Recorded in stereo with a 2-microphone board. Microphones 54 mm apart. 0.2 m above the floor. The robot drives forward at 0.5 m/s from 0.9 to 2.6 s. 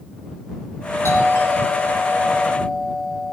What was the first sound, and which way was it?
A doorbell, 50° left (ahead or behind).